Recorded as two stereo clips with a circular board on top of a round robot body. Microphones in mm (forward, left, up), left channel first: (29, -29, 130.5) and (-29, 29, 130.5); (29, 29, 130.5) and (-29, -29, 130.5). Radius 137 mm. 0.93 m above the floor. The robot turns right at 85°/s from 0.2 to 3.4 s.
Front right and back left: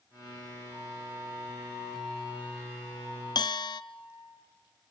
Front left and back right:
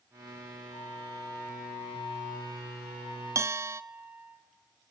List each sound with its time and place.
0.7 s a flute: 60° left, 7 m; by 4.3 s 70° right, 7 m
3.4 s a bell: 80° right, 0.8 m; by 3.8 s 75° right, 0.8 m